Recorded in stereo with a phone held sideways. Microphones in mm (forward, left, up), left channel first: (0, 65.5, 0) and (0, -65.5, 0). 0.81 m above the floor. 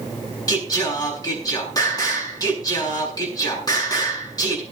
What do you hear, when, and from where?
0.5 s singing: 30° left (ahead or behind), 7.5 m